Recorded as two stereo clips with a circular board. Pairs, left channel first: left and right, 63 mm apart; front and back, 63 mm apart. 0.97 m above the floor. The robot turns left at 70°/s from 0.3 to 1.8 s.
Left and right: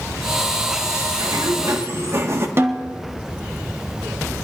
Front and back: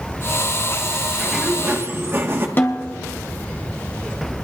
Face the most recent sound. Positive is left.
turn(degrees=-50)